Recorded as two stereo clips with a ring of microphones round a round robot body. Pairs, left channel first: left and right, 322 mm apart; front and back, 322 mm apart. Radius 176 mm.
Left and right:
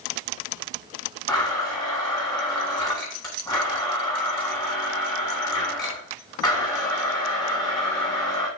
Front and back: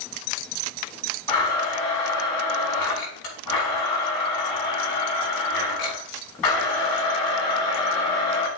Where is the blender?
10° left, 5.5 m.